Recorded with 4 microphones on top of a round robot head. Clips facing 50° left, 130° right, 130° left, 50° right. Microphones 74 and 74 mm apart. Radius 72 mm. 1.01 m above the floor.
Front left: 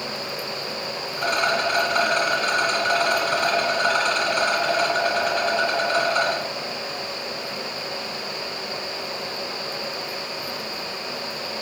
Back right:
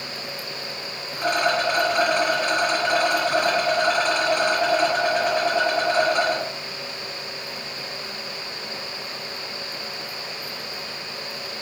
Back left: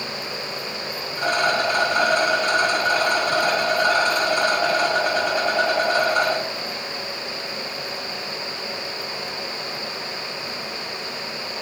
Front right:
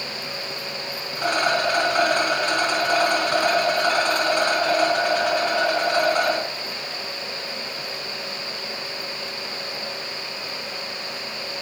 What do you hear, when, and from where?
1.2 s a rattle: 55° right, 1.6 m